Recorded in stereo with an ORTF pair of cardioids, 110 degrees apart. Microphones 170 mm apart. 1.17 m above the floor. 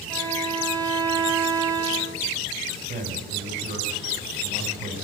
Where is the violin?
25° right, 3 m.